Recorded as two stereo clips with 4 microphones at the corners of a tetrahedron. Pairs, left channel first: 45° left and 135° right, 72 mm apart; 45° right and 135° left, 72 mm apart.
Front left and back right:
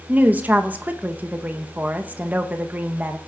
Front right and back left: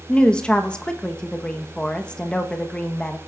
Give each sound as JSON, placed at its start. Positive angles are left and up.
{"t": 0.1, "sound": "a woman speaking", "azimuth_deg": -105, "distance_m": 0.7}